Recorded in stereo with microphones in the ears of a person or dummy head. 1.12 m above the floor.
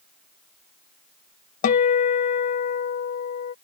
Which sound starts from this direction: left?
A guitar, at 1.6 s.